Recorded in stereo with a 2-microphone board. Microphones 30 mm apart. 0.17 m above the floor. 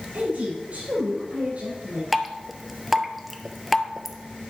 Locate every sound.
0.1 s a woman speaking: 65° right (ahead or behind), 4 m
2.1 s dripping: 5° right (ahead or behind), 0.7 m